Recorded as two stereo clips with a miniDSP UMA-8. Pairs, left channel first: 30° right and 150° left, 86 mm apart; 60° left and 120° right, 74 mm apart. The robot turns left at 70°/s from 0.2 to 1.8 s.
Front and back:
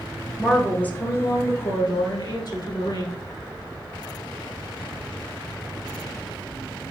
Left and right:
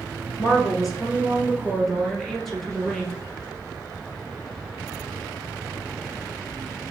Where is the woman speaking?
70° left, 2.5 m; by 3.1 s 30° right, 2.5 m.